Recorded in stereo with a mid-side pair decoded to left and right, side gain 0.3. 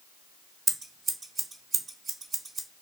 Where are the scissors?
65° right, 1.0 m.